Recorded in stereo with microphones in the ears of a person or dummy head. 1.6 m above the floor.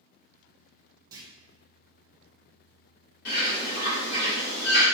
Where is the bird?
55° left (ahead or behind), 1.4 m.